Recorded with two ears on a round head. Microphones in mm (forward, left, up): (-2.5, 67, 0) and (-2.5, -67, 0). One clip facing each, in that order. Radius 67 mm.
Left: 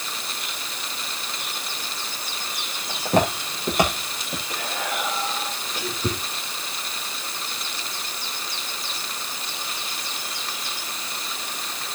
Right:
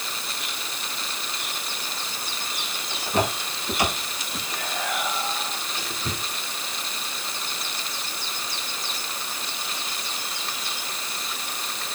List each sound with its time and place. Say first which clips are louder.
2.9 s footsteps: left 4 dB; 40° left (ahead or behind), 7 m; by 4.4 s 45° left (ahead or behind), 7.5 m
4.5 s whispering: even; 35° left (ahead or behind), 6.5 m